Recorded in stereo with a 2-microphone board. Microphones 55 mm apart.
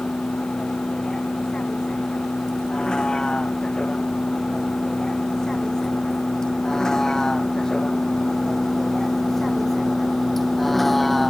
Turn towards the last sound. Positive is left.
turn(degrees=5)  # may be behind; listen again after turning